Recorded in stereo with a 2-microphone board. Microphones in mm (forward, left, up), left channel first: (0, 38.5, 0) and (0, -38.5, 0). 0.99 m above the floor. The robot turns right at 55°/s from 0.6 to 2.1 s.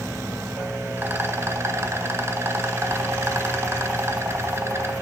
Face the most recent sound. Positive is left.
turn(degrees=-75)